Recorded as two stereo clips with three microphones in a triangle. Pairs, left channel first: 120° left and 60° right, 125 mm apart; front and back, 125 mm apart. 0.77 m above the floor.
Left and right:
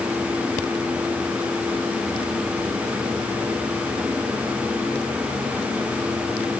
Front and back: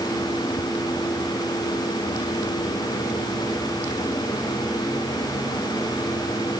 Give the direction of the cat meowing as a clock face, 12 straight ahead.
No cat meowing in this recording.